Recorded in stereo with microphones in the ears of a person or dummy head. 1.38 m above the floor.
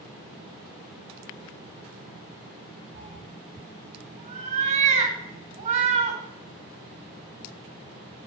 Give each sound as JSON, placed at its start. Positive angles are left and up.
{"t": 3.0, "sound": "a cat meowing", "side_deg": -45, "distance_m": 3.5}